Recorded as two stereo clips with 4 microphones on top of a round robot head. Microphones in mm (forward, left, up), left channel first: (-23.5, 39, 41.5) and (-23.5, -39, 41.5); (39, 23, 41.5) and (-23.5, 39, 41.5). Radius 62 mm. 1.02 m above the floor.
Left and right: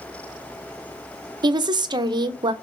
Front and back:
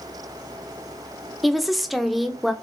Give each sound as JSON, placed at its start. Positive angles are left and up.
{"t": 1.4, "sound": "a woman speaking", "azimuth_deg": -105, "distance_m": 0.6}